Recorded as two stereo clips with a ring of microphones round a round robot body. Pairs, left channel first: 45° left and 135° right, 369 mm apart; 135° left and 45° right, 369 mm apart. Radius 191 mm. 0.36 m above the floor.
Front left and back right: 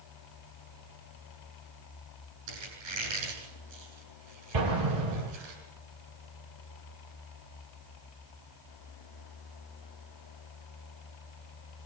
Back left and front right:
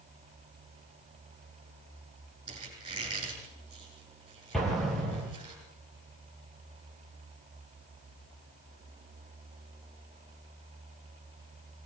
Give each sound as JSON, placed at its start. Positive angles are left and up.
{"t": 2.5, "sound": "a squeak", "azimuth_deg": -120, "distance_m": 8.5}
{"t": 4.5, "sound": "an explosion", "azimuth_deg": -135, "distance_m": 6.0}